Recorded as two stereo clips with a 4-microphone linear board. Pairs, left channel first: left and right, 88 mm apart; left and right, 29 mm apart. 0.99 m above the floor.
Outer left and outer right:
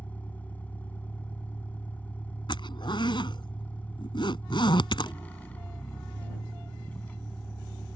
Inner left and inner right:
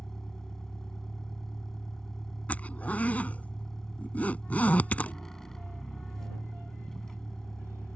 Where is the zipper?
75° left (ahead or behind).